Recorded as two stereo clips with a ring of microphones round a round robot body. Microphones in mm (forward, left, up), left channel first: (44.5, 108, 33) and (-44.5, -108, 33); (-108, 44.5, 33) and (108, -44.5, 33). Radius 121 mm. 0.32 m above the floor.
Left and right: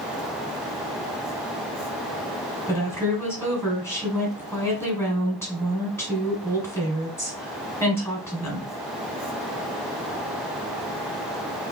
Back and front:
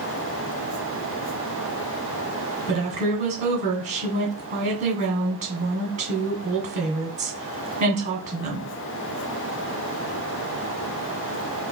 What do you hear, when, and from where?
2.7 s a woman speaking: 5° right, 1.7 m